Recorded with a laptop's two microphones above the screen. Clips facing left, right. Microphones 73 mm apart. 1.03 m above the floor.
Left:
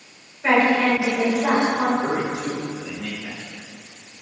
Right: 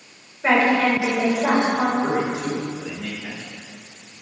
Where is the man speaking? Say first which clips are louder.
Right 1 dB; 15° right (ahead or behind), 4 m.